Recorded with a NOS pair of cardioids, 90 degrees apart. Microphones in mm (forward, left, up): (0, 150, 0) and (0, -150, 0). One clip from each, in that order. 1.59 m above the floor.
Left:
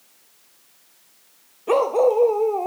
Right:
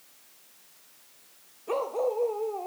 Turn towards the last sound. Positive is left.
turn(degrees=70)